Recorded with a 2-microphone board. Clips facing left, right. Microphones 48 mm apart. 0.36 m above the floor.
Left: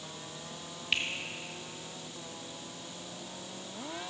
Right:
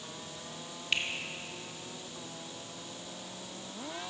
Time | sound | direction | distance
0.9 | a finger snap | 5° left (ahead or behind) | 1.0 m